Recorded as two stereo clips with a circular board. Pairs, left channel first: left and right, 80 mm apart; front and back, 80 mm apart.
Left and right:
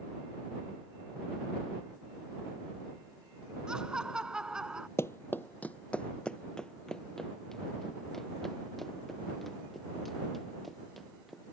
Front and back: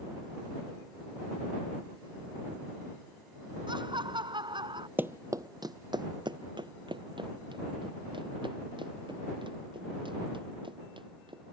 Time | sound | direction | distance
3.7 | laughter | 170° right | ?
5.0 | running footsteps | 125° left | ?